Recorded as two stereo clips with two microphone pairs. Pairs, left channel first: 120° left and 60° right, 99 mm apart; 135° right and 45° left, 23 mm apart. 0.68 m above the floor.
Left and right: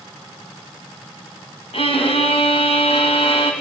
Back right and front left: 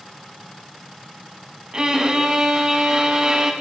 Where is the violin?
100° left, 4 m.